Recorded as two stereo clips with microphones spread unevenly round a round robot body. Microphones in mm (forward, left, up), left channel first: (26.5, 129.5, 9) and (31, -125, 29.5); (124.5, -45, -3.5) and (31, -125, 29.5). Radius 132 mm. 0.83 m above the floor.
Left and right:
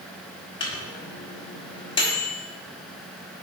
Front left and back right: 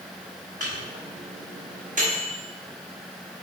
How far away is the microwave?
About 1.1 m.